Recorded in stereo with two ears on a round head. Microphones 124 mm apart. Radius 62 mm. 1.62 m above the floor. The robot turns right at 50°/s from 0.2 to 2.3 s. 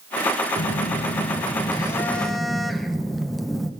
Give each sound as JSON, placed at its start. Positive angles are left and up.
{"t": 0.6, "sound": "a phone buzzing", "azimuth_deg": 95, "distance_m": 1.4}